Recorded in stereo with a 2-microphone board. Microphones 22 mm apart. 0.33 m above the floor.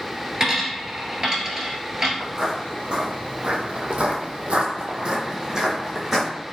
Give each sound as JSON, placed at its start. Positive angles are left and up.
{"t": 0.4, "sound": "a dropped coin", "side_deg": -20, "distance_m": 1.0}
{"t": 2.2, "sound": "footsteps", "side_deg": -30, "distance_m": 1.3}